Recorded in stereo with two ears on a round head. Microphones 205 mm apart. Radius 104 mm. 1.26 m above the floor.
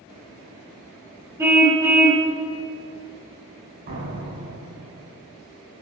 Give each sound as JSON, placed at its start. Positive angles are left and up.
{"t": 1.4, "sound": "a car horn", "side_deg": -10, "distance_m": 3.5}
{"t": 3.9, "sound": "a door slam", "side_deg": -50, "distance_m": 5.5}